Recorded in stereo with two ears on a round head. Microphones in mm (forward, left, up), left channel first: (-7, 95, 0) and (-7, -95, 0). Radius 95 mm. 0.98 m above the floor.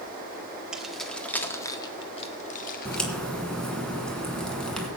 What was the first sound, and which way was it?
Keys jangling, 5° right (ahead or behind).